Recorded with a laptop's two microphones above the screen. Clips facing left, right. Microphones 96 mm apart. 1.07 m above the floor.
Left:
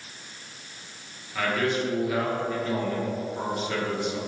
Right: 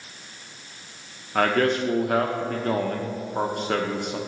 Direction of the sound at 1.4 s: 60° right (ahead or behind).